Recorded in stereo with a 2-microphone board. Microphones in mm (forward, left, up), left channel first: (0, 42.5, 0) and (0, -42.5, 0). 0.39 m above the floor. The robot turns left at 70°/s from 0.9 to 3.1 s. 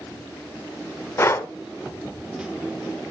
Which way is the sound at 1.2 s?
30° left (ahead or behind).